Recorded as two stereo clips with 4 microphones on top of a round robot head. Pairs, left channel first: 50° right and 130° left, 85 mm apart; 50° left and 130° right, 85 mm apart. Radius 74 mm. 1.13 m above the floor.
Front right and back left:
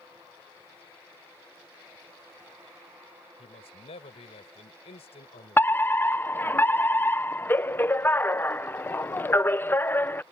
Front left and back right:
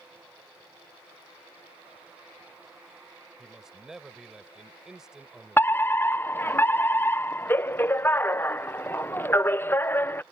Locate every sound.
3.4 s a man speaking: 50° right
5.6 s a fire alarm: straight ahead